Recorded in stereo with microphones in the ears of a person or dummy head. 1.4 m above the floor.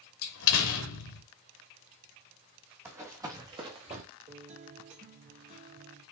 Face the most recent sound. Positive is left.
turn(degrees=-40)  # may be behind; listen again after turning